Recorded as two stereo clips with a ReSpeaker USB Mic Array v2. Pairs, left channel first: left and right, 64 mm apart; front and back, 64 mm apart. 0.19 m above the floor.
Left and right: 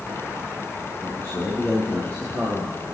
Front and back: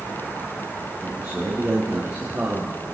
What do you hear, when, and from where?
1.0 s a man speaking: 135° left, 4 m; by 2.8 s 150° left, 5 m